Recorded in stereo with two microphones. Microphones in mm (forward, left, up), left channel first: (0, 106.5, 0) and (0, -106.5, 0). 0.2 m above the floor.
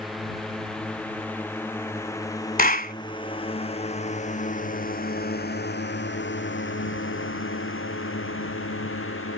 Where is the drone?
Centre (ahead or behind); by 9.4 s 85° left.